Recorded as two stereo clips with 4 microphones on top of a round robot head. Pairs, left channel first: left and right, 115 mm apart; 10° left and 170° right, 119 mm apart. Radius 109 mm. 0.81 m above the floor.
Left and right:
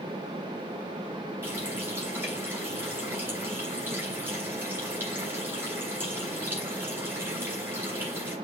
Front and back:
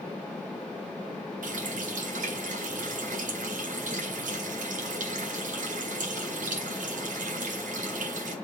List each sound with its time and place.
1.4 s a running tap: 165° right, 2.5 m